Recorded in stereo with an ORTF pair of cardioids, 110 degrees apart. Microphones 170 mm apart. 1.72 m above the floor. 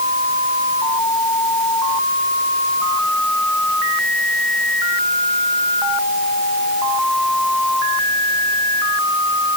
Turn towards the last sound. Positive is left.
No sound to turn to.